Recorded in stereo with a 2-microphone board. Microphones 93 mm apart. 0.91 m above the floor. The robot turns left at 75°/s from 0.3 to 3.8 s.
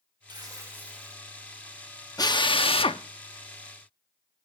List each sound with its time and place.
0.3 s tearing paper: 120° right, 1.5 m; by 1.2 s 170° left, 1.5 m
2.2 s a drill: 40° left (ahead or behind), 0.9 m; by 4.5 s 15° left (ahead or behind), 0.9 m